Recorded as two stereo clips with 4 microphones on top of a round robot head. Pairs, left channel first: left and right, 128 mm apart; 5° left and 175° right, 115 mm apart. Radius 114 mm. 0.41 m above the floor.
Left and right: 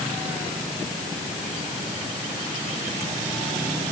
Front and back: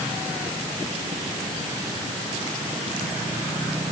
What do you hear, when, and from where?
Only background noise.